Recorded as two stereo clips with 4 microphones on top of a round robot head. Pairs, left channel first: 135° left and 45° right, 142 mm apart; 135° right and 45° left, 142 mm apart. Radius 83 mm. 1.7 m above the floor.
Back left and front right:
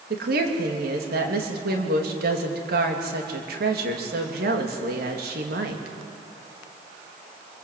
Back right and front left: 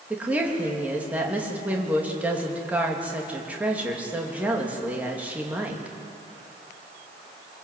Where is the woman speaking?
35° right, 3 m.